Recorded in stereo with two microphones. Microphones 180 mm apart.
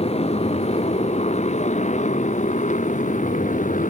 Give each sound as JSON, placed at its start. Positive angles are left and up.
{"t": 0.0, "sound": "a motorcycle", "side_deg": 35}